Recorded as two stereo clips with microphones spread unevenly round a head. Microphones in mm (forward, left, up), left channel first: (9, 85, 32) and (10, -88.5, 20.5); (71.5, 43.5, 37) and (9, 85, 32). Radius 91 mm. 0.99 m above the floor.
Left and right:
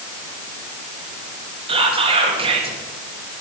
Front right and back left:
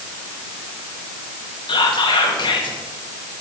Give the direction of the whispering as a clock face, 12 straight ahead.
1 o'clock.